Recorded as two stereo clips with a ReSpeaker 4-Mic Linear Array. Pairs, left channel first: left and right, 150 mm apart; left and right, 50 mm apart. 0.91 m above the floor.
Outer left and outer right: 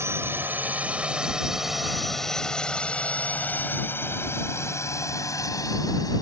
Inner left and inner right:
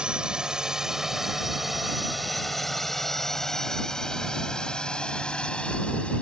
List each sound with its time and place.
0.0 s a drone: 15° right (ahead or behind); by 6.2 s 25° left (ahead or behind)